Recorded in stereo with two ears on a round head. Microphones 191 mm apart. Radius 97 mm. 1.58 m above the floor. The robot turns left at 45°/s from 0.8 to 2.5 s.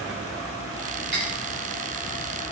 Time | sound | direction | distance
1.1 | cutlery clinking | 55° right (ahead or behind) | 7.5 m